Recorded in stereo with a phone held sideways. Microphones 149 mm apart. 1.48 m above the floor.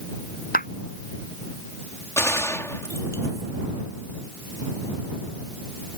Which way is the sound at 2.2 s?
20° left (ahead or behind).